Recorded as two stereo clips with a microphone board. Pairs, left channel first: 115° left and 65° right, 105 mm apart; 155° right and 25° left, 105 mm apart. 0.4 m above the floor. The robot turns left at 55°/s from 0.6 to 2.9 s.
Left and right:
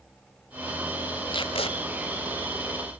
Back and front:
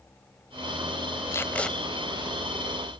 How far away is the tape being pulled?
About 1.2 m.